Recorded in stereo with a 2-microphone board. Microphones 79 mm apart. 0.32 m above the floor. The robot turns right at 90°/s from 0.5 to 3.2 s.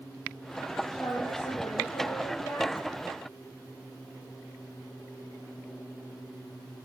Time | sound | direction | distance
0.9 | a woman speaking | 15° left | 7 m